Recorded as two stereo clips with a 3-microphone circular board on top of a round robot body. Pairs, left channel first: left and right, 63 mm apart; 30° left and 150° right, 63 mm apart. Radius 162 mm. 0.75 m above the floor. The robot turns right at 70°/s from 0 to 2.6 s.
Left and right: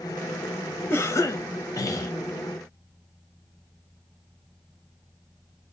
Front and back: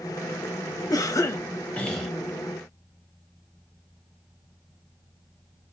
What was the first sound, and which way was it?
A cough, 40° left.